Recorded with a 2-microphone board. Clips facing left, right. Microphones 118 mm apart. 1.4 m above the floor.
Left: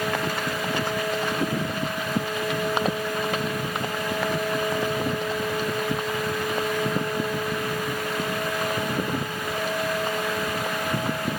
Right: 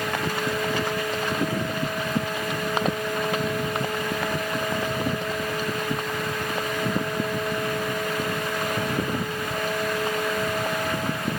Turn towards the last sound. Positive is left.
No sound to turn to.